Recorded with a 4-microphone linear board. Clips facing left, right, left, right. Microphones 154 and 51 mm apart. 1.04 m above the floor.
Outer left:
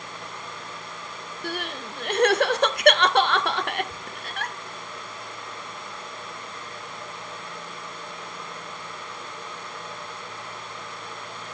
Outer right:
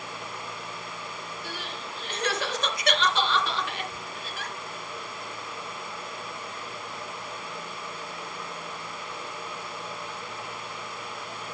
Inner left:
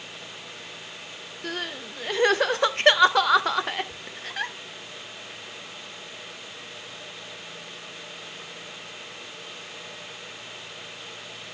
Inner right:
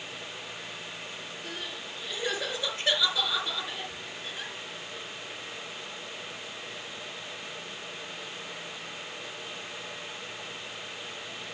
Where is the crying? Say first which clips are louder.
Outer left 5 dB, inner left 9 dB; 60° left (ahead or behind), 0.5 m.